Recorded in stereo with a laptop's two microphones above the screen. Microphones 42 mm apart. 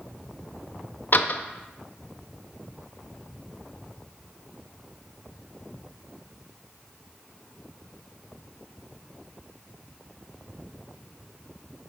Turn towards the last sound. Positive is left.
turn(degrees=50)  # may be behind; listen again after turning